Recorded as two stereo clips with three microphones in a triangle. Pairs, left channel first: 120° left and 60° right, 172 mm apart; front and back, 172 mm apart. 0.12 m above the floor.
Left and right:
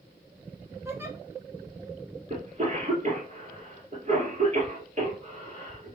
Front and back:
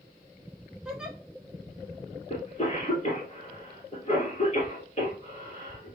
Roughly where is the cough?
Ahead right.